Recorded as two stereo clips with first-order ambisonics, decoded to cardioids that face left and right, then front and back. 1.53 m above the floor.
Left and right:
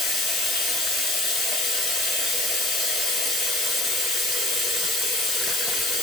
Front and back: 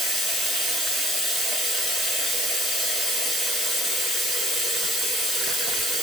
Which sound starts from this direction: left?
Running water, at 0.0 s.